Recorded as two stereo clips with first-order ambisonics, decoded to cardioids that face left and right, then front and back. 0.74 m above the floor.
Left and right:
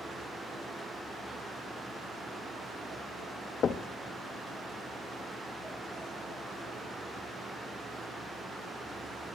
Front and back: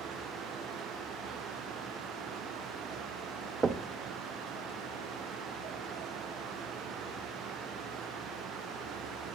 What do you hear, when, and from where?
3.6 s knocking: 130° left, 0.5 m